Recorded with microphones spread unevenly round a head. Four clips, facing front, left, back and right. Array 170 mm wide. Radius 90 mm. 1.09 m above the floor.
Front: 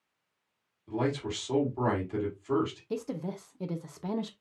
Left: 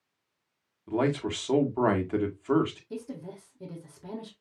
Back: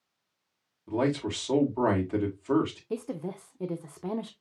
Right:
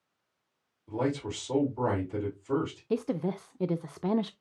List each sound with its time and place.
0.9 s a man speaking: 115° left, 1.6 m
2.9 s a woman speaking: 100° right, 0.6 m